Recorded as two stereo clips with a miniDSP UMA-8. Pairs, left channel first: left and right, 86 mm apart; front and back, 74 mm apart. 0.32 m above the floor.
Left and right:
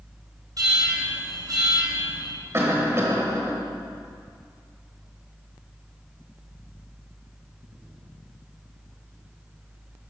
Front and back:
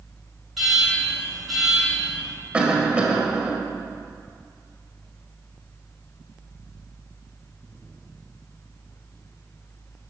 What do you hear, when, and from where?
0.6 s an alarm: 95° right, 3 m
2.5 s a cough: 115° right, 1.4 m